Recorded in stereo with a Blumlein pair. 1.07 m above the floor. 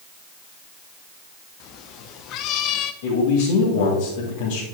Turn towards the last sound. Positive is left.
turn(degrees=50)